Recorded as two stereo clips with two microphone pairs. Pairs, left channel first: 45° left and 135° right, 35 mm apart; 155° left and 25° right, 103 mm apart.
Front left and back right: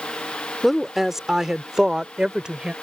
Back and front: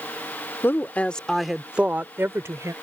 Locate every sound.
0.6 s a woman speaking: 140° left; by 2.7 s 75° right